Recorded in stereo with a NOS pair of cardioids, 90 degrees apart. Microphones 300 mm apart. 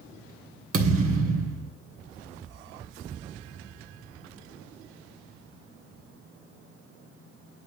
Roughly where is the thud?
Ahead right.